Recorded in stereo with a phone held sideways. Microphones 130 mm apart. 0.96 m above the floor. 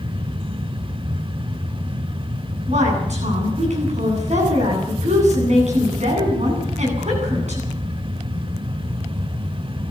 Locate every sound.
0.0 s a fan: 40° right (ahead or behind), 0.8 m
2.7 s a woman speaking: 65° right (ahead or behind), 9.5 m